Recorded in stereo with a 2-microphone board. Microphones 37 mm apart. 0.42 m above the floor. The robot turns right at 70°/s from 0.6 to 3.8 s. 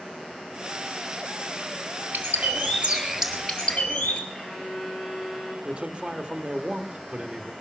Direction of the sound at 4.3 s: 15° right (ahead or behind).